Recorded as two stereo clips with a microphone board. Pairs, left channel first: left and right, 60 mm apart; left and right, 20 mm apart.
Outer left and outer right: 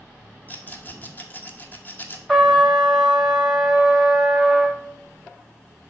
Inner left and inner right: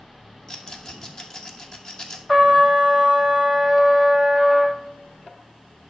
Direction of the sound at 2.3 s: Centre (ahead or behind).